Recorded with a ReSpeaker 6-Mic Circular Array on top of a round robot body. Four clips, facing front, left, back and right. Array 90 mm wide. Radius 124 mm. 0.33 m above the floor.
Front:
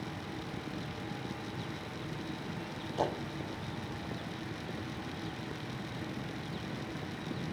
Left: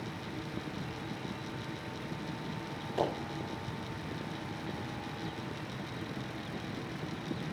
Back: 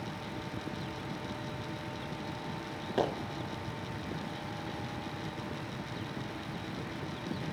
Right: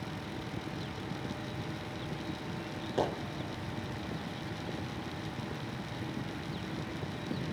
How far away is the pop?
About 4 m.